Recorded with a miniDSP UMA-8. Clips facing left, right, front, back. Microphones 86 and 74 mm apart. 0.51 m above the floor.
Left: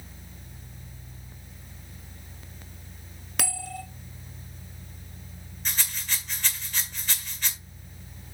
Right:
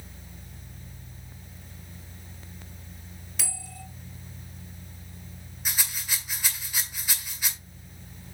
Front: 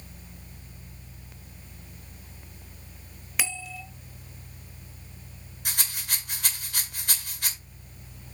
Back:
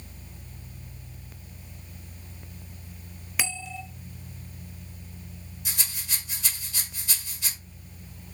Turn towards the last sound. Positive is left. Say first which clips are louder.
# even, front 3 dB
turn(degrees=-10)